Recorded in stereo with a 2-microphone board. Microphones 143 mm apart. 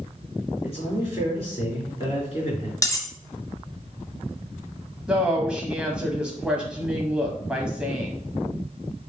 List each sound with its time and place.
0.6 s a man speaking: 45° left (ahead or behind), 3.5 m
2.8 s cutlery clinking: 25° left (ahead or behind), 0.9 m
5.1 s a woman speaking: 5° right (ahead or behind), 1.0 m